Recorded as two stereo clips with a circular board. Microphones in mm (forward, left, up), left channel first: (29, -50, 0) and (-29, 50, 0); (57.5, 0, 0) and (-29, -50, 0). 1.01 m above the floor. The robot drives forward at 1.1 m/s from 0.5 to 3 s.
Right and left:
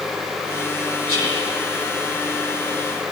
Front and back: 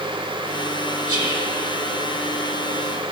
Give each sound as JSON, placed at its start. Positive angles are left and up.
{"t": 1.1, "sound": "whispering", "azimuth_deg": 170, "distance_m": 2.0}